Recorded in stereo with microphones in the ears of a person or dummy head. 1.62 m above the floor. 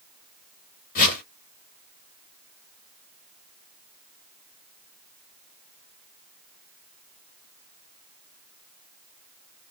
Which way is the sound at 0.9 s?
50° left (ahead or behind).